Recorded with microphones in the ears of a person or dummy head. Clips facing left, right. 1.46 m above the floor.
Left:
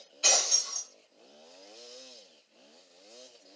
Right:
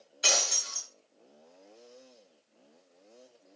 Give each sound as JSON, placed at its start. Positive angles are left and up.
{"t": 0.2, "sound": "breaking glass", "side_deg": -15, "distance_m": 1.6}